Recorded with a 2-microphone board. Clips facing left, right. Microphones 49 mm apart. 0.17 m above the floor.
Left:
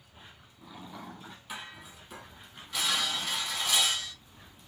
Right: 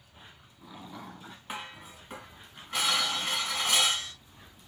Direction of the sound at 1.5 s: 40° right (ahead or behind).